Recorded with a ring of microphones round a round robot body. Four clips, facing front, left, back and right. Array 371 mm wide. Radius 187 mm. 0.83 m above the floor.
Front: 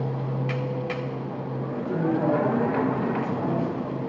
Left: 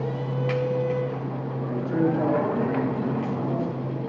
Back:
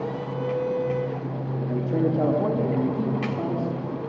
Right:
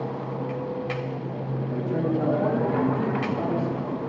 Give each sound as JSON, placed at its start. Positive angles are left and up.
{"t": 1.7, "sound": "a man speaking", "azimuth_deg": 140, "distance_m": 1.5}